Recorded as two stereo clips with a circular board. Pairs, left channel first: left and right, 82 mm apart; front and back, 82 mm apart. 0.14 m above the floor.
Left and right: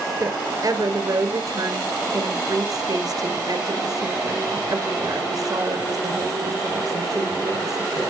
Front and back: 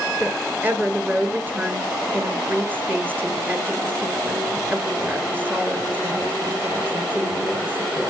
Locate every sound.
0.2 s a woman speaking: 120° right, 2.5 m